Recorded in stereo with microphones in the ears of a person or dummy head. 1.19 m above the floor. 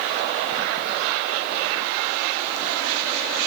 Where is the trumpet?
I don't hear a trumpet.